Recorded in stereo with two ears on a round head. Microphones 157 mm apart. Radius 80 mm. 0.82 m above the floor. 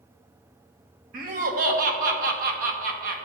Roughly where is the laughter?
Right.